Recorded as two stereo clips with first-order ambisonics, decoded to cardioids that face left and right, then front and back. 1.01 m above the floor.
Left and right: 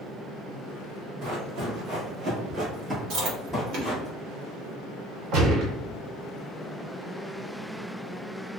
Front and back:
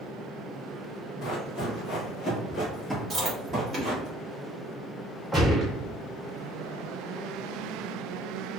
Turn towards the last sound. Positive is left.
turn(degrees=-90)